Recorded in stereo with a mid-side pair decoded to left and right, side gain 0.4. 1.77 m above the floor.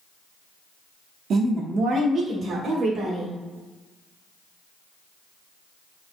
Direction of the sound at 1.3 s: 70° right.